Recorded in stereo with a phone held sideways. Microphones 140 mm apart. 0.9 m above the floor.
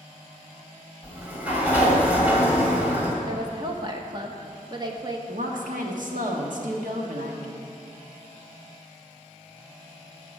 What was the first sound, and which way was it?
A sliding door, 10° right (ahead or behind).